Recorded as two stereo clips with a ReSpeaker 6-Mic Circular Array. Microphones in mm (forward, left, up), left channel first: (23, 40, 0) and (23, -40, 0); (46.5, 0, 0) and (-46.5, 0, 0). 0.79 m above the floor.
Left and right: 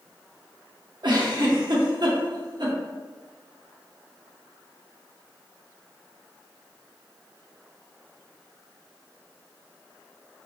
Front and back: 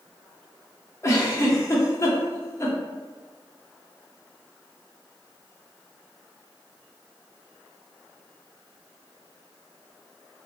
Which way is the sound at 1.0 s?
60° right.